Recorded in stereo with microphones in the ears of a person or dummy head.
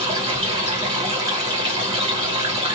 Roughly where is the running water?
Right.